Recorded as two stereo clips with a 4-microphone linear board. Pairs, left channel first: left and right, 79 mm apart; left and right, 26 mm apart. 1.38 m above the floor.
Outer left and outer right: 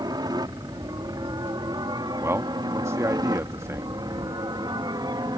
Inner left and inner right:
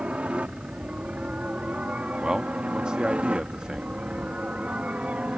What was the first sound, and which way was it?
A helicopter, 60° right (ahead or behind).